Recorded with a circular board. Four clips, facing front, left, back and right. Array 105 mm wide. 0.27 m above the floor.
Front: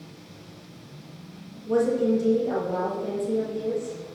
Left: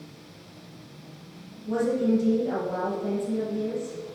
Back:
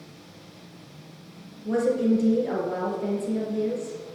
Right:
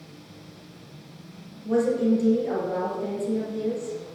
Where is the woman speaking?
150° right, 5 m.